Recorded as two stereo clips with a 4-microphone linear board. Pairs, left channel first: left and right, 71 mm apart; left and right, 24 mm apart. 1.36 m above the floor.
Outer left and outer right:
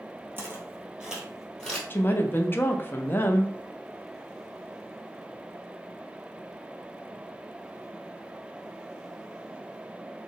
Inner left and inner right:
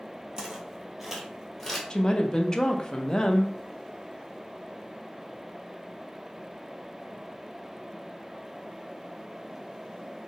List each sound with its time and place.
0.4 s footsteps: 30° right (ahead or behind), 1.5 m; by 1.8 s 10° left (ahead or behind), 1.5 m
1.9 s a woman speaking: 30° left (ahead or behind), 0.5 m